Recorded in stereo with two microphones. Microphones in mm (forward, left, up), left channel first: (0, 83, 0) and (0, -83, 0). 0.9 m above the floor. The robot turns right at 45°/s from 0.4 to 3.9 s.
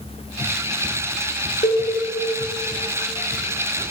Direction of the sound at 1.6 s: 45° left (ahead or behind).